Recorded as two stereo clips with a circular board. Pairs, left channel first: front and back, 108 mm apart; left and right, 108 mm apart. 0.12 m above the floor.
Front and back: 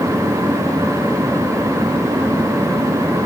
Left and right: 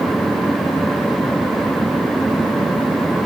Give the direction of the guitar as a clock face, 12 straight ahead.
No guitar in this recording.